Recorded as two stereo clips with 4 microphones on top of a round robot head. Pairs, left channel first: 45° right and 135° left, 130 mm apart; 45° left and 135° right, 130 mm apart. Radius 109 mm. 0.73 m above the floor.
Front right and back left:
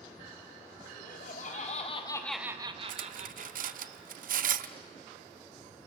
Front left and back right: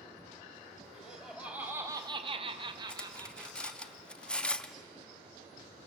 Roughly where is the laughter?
Ahead right.